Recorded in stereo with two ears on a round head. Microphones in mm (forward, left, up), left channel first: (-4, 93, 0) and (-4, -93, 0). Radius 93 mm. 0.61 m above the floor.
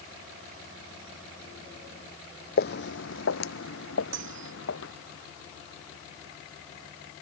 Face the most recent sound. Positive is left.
turn(degrees=-60)  # may be behind; listen again after turning